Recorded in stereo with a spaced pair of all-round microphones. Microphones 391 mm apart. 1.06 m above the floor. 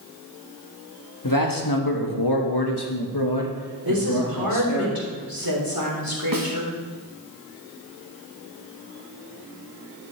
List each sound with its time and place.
1.2 s a man speaking: 55° left (ahead or behind), 1.6 m; by 4.8 s 40° left (ahead or behind), 1.6 m
3.9 s a woman speaking: 65° right (ahead or behind), 3.5 m
6.3 s a snare drum: 60° right (ahead or behind), 1.4 m